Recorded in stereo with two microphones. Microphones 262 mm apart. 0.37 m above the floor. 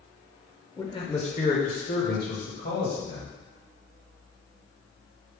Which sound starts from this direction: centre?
A man speaking, at 0.8 s.